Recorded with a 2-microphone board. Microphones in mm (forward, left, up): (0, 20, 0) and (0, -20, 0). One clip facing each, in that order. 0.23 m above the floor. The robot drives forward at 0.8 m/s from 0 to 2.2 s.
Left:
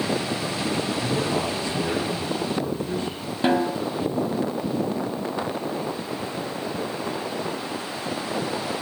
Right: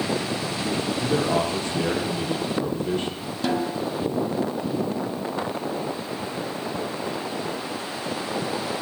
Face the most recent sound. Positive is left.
turn(degrees=30)  # may be behind; listen again after turning